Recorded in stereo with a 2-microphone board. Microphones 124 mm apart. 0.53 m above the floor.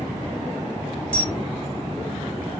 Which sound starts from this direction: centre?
A camera shutter, at 1.1 s.